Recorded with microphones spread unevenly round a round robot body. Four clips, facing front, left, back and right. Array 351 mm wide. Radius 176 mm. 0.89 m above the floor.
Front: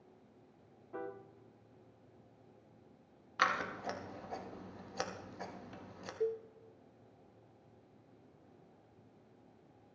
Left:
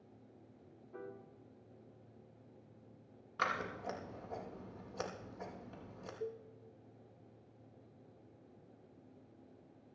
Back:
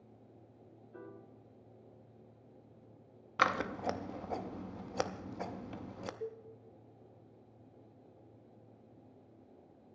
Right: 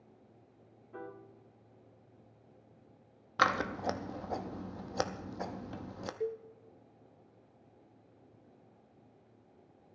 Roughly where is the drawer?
I don't hear a drawer.